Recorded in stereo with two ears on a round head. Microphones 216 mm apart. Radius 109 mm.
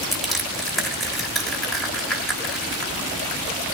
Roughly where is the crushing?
Centre.